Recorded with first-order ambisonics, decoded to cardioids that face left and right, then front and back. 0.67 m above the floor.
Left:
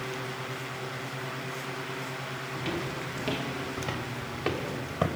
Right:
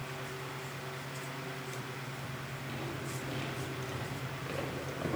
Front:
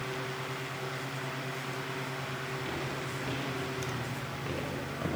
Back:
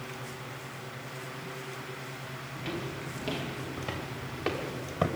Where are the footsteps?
105° left, 3.5 m; by 5.1 s 135° left, 4.5 m.